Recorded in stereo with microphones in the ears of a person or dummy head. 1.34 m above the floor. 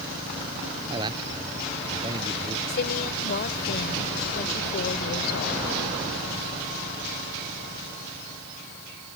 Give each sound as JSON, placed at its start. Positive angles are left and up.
{"t": 0.9, "sound": "a man speaking", "side_deg": -25}
{"t": 2.7, "sound": "a woman speaking", "side_deg": 55}